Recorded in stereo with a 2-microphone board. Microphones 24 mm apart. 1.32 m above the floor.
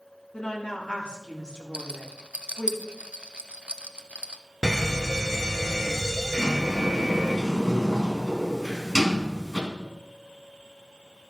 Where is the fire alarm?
20° right (ahead or behind), 1.0 m.